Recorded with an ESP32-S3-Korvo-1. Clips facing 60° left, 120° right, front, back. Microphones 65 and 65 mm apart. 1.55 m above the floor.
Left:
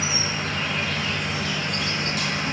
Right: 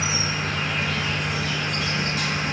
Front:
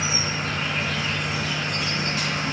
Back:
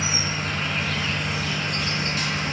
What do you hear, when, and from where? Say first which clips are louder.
0.0 s an insect: right 1 dB, even; 65° right, 1.5 m